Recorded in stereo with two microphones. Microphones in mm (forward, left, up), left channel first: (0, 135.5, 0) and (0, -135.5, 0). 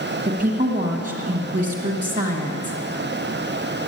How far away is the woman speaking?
About 1.8 m.